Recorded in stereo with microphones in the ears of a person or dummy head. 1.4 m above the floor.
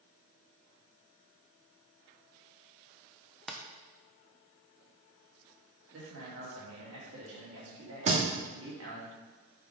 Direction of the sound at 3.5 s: Centre (ahead or behind).